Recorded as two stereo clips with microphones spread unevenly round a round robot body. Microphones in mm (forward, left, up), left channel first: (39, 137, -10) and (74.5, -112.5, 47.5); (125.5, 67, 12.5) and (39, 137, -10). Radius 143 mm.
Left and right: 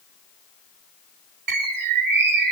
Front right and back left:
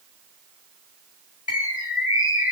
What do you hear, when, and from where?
1.5 s a bird: 80° right, 1.7 m